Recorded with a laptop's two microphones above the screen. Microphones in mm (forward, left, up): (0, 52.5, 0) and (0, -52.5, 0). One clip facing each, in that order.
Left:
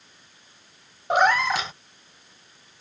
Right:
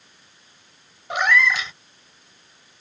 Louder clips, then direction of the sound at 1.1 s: Left 1 dB; 40° left (ahead or behind).